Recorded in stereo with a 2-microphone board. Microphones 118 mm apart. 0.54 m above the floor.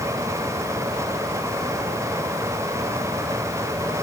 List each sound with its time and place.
Only background noise.